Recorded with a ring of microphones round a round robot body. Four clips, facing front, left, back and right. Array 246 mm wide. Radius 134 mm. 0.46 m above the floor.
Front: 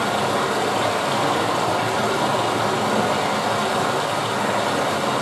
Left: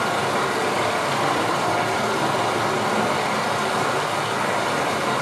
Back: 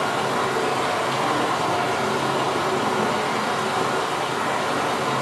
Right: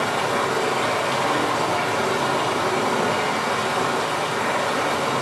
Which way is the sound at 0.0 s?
30° left.